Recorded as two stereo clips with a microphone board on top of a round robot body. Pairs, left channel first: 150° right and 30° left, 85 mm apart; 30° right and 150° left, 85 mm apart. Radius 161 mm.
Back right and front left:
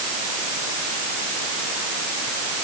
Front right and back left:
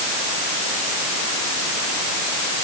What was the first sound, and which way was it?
Only background noise.